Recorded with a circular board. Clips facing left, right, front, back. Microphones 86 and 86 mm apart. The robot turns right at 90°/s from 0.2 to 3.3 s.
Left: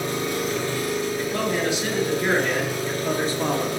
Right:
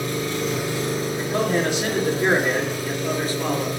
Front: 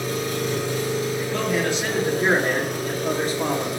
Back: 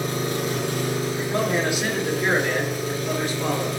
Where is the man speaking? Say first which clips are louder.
Right 2 dB, even; 155° right, 1.9 m; by 3.7 s 40° left, 1.9 m.